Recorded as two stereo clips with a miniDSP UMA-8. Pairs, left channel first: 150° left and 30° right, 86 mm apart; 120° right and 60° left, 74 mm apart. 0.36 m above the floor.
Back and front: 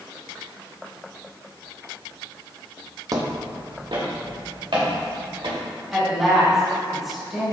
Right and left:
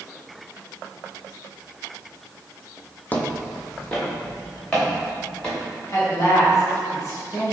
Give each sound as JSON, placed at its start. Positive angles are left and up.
{"t": 3.1, "sound": "footsteps", "azimuth_deg": -60, "distance_m": 0.5}
{"t": 5.9, "sound": "a woman speaking", "azimuth_deg": -115, "distance_m": 1.3}